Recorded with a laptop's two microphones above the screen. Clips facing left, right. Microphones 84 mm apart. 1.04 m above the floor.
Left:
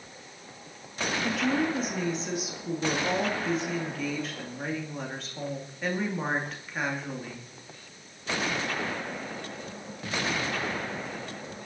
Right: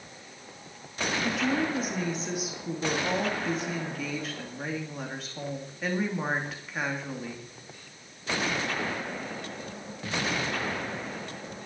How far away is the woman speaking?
About 2.5 m.